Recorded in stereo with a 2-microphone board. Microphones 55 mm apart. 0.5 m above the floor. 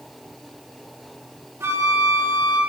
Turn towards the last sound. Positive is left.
turn(degrees=-50)  # may be behind; listen again after turning